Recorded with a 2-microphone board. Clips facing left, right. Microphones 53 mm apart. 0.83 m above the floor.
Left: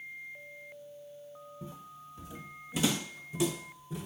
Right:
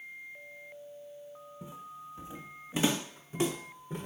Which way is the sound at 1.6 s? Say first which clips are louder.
Right 2 dB; 15° right (ahead or behind).